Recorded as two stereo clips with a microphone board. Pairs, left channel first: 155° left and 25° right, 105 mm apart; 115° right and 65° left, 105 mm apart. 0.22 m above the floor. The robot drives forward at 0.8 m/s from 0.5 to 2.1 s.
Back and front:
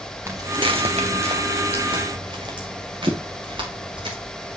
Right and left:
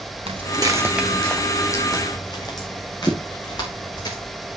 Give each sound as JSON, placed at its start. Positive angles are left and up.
{"t": 0.3, "sound": "footsteps", "azimuth_deg": 40, "distance_m": 1.2}